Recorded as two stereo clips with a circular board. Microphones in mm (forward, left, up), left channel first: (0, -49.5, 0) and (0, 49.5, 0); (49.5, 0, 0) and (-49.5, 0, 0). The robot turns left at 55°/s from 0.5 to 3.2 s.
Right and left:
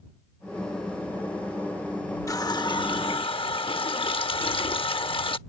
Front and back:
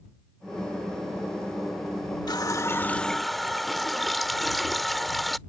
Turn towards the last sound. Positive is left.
turn(degrees=-90)